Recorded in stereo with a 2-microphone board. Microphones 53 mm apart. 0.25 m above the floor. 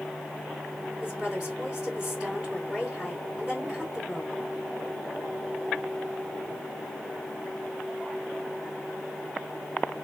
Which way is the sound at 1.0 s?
10° right (ahead or behind).